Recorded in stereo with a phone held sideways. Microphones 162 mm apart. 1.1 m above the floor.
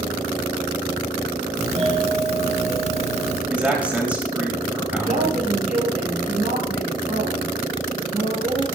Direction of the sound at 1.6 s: 40° right (ahead or behind).